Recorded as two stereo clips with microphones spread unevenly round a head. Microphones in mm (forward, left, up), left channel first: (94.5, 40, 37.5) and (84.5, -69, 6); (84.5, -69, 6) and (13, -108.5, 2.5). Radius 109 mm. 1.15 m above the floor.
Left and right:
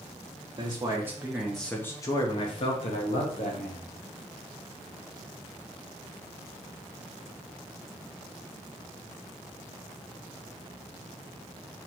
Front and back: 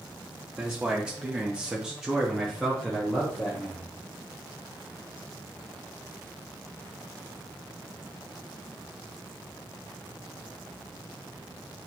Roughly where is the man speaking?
Right.